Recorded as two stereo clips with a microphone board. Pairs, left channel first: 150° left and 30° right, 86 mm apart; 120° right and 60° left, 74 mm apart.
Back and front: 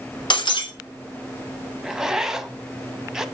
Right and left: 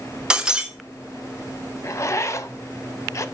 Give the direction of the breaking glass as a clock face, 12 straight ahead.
7 o'clock.